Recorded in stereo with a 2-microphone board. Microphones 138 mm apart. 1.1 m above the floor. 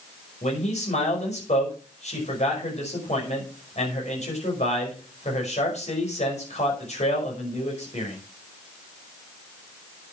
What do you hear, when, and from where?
0.4 s a man speaking: 55° left (ahead or behind), 5.5 m